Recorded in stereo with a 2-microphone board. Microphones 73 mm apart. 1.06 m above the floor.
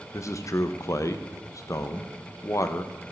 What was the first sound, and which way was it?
A man speaking, 45° left (ahead or behind).